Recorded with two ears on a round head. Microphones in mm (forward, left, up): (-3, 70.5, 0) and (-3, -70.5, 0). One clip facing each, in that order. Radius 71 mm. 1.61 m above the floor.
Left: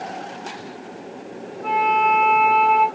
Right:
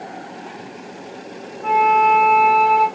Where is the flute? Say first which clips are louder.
Right 4 dB; 5° right (ahead or behind), 2 m.